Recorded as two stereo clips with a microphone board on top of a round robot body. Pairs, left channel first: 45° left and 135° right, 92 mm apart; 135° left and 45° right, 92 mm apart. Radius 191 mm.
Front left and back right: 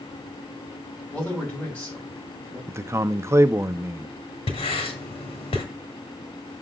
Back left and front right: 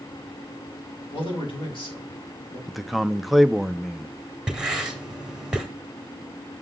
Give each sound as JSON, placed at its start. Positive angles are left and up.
{"t": 1.1, "sound": "a man speaking", "azimuth_deg": 120, "distance_m": 5.0}
{"t": 2.7, "sound": "a man speaking", "azimuth_deg": -130, "distance_m": 0.6}
{"t": 4.5, "sound": "writing", "azimuth_deg": 40, "distance_m": 1.9}